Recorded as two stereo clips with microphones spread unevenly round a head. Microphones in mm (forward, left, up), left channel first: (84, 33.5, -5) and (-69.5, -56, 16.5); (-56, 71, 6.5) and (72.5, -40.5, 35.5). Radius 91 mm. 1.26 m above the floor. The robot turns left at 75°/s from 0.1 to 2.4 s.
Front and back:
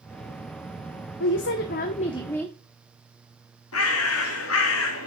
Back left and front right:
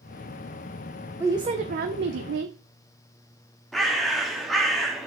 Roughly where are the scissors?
I don't hear scissors.